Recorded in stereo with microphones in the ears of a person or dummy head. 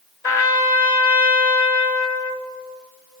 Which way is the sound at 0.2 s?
10° left (ahead or behind).